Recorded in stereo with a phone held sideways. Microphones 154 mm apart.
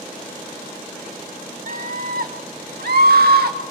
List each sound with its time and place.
1.7 s a scream: 55° right (ahead or behind), 1.4 m; by 3.6 s 85° right, 2.5 m